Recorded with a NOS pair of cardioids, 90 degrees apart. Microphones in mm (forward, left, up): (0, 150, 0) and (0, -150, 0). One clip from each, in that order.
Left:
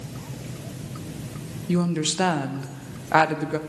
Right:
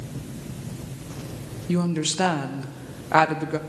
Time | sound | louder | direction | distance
1.7 | a woman speaking | left 1 dB | straight ahead | 0.6 m